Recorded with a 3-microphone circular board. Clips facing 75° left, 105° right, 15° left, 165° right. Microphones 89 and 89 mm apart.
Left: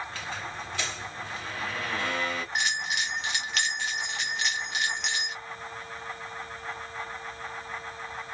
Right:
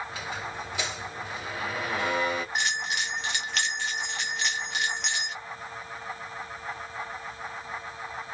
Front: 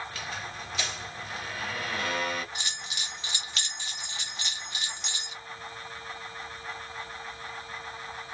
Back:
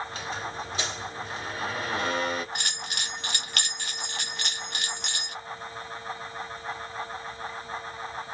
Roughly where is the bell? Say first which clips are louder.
Even, back 4 dB; behind.